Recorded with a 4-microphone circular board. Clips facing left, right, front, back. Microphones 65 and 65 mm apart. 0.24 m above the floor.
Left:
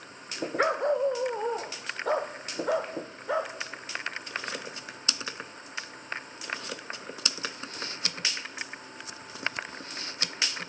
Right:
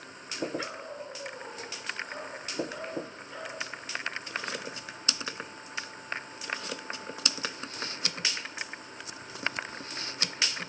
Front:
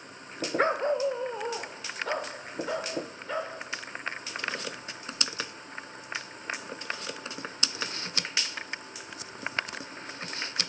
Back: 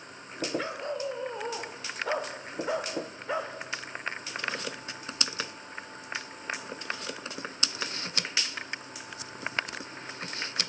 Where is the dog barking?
40° left, 0.9 m; by 3.5 s 105° left, 4 m.